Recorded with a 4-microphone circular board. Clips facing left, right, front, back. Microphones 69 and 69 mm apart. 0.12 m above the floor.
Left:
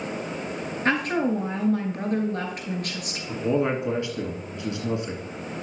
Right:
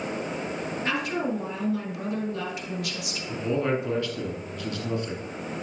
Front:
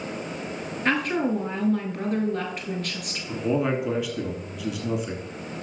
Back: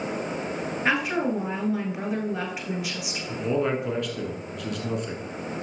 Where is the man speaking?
75° left, 1.2 m.